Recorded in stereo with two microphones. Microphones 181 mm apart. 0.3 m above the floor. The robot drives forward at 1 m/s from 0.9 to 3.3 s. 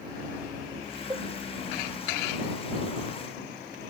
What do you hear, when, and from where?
1.1 s a cowbell: 20° right (ahead or behind)